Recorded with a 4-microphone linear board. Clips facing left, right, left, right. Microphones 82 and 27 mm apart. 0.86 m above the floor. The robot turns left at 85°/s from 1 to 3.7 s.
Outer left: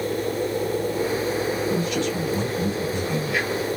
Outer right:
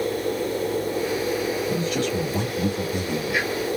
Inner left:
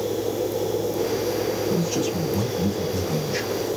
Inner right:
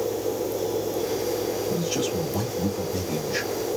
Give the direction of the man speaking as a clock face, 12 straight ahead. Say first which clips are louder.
Even, inner left 2 dB; 1 o'clock.